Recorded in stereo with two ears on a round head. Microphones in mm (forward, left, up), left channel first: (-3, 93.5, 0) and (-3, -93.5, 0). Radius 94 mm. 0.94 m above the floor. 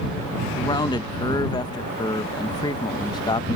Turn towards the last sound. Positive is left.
turn(degrees=20)  # may be behind; listen again after turning